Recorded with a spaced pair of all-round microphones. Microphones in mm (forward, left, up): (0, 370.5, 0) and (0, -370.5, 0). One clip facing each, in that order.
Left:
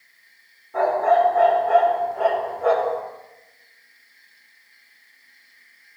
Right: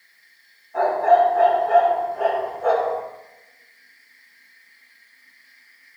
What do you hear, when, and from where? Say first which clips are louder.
0.7 s a dog barking: right 1 dB; 75° left (ahead or behind), 4 m